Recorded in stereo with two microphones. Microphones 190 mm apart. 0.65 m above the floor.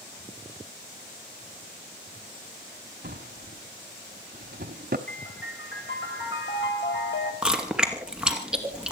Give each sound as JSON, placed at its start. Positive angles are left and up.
{"t": 3.0, "sound": "a drawer", "side_deg": -55, "distance_m": 1.2}
{"t": 5.1, "sound": "a piano", "side_deg": 75, "distance_m": 3.0}
{"t": 7.4, "sound": "chewing", "side_deg": -5, "distance_m": 2.5}